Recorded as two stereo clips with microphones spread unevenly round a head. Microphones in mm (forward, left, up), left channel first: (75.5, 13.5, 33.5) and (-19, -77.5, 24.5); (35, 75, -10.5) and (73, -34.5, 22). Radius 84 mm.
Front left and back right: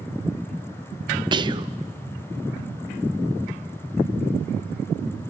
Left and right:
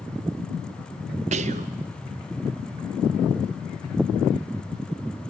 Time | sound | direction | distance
1.3 | whispering | 80° right | 0.6 m